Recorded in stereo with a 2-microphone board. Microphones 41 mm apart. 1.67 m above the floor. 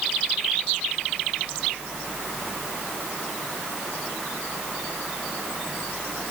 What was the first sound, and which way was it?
Only background noise.